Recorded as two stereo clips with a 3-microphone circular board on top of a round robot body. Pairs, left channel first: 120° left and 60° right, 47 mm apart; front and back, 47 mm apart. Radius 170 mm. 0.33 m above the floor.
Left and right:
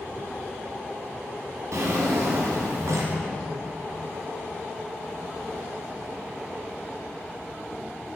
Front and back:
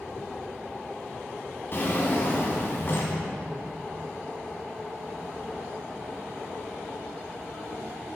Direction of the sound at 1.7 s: 45° right.